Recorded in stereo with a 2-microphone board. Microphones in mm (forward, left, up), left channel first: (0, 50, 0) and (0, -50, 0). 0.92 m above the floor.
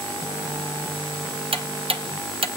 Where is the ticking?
70° right (ahead or behind), 0.7 m.